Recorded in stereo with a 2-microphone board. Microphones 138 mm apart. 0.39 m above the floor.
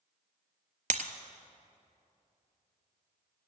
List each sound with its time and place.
0.9 s breaking glass: 60° right (ahead or behind), 0.9 m